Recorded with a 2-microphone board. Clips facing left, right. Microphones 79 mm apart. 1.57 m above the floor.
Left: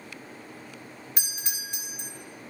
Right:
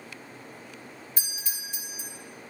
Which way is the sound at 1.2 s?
70° left (ahead or behind).